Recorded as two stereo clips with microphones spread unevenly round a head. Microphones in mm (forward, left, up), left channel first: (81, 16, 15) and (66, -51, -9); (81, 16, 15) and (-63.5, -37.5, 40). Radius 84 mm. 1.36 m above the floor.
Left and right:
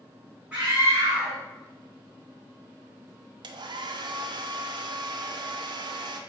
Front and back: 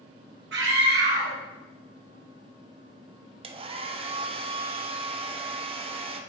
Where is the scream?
175° left, 2.0 m.